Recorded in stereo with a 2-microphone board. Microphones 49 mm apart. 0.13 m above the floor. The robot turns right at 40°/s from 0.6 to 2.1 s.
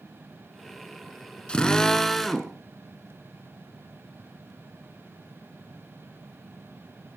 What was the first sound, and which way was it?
A drill, 20° left (ahead or behind).